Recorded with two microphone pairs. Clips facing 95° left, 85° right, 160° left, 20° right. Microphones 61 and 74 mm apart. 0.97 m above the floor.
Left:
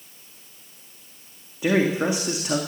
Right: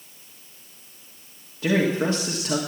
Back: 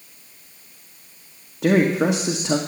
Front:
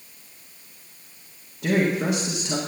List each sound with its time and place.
1.6 s a man speaking: 170° left, 1.6 m